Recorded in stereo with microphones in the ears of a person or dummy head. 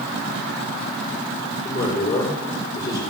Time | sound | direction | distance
1.6 | a woman speaking | 25° left (ahead or behind) | 5 m